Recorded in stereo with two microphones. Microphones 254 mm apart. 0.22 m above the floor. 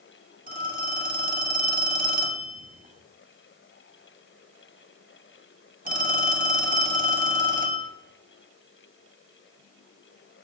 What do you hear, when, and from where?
0.5 s a phone ringing: 35° right (ahead or behind), 0.7 m